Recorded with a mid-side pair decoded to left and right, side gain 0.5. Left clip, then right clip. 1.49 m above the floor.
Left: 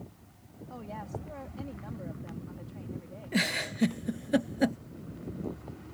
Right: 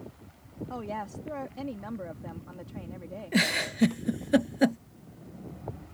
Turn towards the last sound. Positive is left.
turn(degrees=-20)